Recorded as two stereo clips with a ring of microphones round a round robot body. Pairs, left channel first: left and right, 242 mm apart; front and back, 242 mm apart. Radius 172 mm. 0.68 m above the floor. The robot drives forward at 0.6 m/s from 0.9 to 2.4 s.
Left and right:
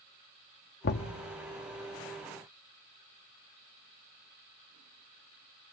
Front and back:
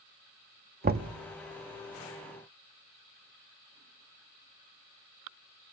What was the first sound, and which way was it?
Knocking, 135° left.